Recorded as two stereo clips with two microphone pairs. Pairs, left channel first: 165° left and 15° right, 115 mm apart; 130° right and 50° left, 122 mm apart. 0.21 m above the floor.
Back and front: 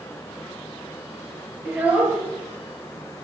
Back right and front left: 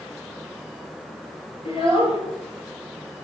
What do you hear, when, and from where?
1.6 s a child speaking: 90° right, 3 m